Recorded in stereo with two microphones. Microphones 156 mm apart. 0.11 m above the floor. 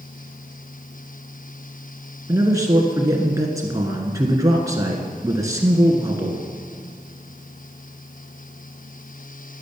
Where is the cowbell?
No cowbell in this recording.